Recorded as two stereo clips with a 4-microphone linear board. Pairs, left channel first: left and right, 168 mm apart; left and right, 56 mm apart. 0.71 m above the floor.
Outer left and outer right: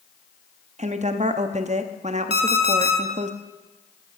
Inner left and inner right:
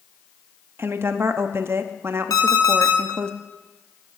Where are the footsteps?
No footsteps in this recording.